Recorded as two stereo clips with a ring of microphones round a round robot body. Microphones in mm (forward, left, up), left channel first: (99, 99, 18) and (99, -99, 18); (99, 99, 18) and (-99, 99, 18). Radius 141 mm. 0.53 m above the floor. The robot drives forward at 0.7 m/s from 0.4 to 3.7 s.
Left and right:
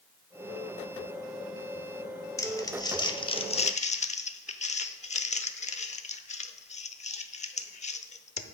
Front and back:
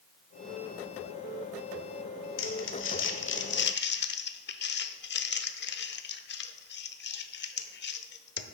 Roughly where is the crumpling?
Ahead.